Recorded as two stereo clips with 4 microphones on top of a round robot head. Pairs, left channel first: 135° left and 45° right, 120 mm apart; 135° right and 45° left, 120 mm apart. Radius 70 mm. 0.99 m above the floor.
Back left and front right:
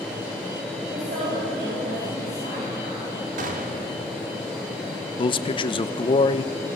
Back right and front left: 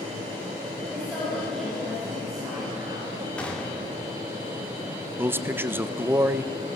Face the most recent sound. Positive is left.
turn(degrees=110)